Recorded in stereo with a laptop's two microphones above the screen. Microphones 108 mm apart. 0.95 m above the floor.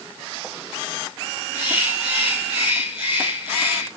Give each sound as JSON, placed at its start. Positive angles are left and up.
{"t": 1.5, "sound": "a bird", "side_deg": -20, "distance_m": 7.0}